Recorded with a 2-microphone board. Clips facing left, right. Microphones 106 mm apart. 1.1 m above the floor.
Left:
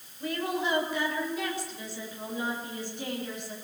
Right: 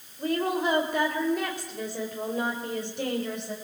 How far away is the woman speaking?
About 4 m.